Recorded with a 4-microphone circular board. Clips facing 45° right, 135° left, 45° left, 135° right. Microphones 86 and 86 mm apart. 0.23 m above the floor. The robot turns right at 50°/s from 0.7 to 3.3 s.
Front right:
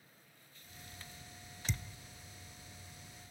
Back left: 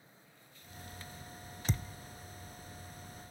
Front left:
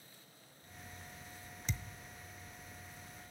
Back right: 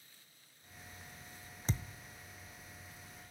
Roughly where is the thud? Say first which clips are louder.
Back left 5 dB, back right 4 dB; behind.